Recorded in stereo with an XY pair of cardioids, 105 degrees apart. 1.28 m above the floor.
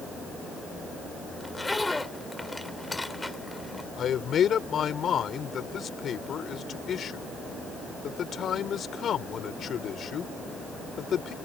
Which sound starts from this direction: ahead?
A zipper, at 1.4 s.